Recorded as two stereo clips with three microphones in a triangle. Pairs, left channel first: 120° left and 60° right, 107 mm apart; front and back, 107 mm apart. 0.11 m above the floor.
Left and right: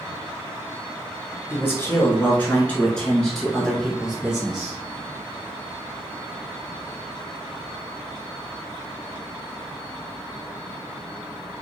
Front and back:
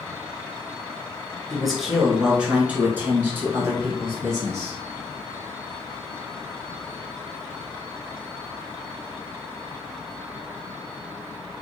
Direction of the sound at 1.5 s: 90° left.